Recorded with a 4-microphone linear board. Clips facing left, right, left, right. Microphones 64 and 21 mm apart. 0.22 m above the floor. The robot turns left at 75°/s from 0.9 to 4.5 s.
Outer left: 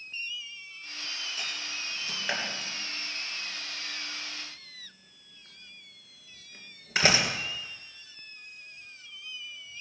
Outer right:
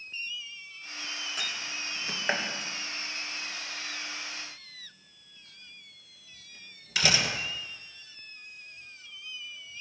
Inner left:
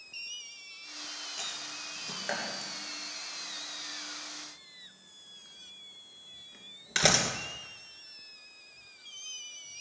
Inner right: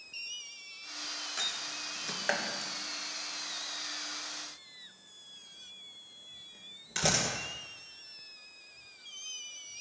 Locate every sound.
1.4 s a door slam: 70° right (ahead or behind), 3 m; by 7.3 s 35° left (ahead or behind), 3 m